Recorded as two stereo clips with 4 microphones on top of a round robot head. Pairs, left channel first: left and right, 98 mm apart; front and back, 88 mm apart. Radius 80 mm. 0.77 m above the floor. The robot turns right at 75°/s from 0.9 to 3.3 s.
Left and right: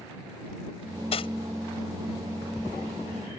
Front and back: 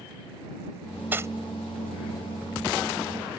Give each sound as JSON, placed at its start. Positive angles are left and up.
{"t": 1.1, "sound": "cutlery clinking", "azimuth_deg": 110}